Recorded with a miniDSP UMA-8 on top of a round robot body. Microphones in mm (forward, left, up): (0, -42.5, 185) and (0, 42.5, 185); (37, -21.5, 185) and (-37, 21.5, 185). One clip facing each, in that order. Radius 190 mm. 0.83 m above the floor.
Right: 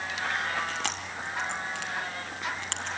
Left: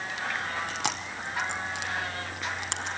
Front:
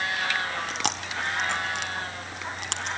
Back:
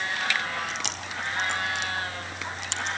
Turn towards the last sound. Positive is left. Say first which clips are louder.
# left 1 dB, front 3 dB
turn(degrees=15)